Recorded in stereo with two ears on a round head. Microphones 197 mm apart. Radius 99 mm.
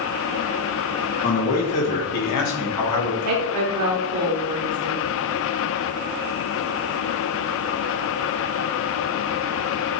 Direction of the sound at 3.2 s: 75° right (ahead or behind).